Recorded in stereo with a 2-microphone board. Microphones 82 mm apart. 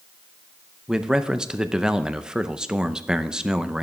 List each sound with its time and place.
0.9 s a man speaking: 10° right (ahead or behind), 0.6 m